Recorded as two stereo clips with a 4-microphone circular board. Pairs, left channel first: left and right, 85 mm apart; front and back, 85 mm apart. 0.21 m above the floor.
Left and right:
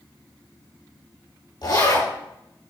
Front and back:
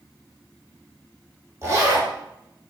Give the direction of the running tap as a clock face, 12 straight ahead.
No running tap in this recording.